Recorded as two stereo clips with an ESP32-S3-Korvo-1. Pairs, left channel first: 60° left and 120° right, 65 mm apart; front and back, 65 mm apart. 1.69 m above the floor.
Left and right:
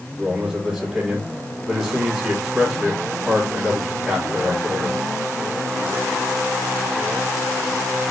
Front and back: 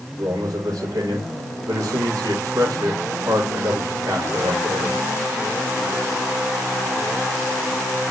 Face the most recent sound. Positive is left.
turn(degrees=165)